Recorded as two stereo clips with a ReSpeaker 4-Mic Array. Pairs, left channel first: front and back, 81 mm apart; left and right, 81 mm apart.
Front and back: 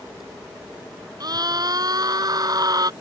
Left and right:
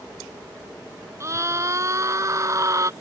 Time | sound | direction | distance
1.2 | a scream | 145° right | ?